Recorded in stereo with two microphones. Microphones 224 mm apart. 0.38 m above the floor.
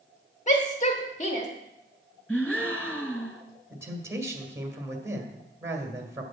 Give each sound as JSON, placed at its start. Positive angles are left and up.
{"t": 0.5, "sound": "a shout", "side_deg": 35, "distance_m": 1.3}
{"t": 2.3, "sound": "a gasp", "side_deg": 5, "distance_m": 1.3}
{"t": 3.7, "sound": "a man speaking", "side_deg": -15, "distance_m": 2.0}